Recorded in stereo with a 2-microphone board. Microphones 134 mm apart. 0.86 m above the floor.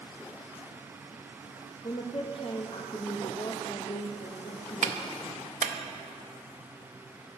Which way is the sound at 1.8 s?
45° left (ahead or behind).